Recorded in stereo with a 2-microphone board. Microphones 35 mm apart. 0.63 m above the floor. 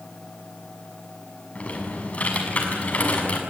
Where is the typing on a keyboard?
40° left (ahead or behind), 6.5 m.